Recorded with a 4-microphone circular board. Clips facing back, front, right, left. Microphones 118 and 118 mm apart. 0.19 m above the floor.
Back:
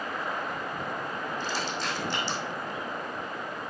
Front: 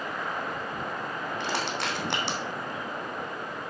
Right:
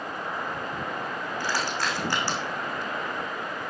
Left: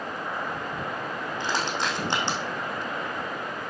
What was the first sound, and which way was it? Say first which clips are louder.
Crushing: front 4 dB, left 1 dB; 20° left.